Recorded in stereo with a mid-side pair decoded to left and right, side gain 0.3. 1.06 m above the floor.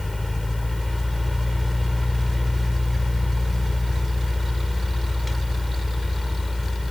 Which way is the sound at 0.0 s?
25° left.